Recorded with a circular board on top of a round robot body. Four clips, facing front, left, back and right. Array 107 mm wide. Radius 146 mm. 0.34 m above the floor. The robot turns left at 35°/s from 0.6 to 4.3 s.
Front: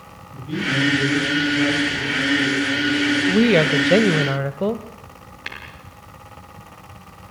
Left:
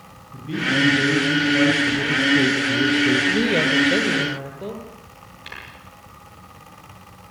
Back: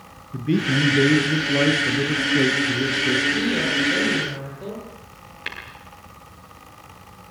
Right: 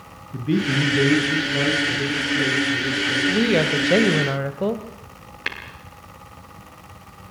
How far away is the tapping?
About 8 m.